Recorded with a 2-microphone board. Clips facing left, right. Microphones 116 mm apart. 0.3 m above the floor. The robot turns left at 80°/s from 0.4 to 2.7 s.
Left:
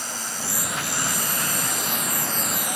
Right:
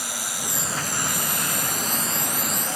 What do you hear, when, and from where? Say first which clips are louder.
0.0 s an insect: even; 10° right; by 2.8 s 165° left